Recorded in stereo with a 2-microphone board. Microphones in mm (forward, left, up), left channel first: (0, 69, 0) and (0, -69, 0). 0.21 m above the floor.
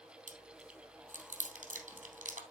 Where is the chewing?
80° right, 3 m.